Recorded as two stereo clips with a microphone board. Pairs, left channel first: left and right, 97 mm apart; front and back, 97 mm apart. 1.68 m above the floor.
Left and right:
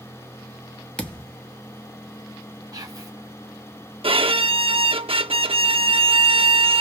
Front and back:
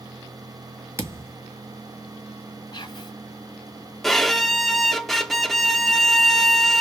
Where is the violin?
85° right, 0.5 m.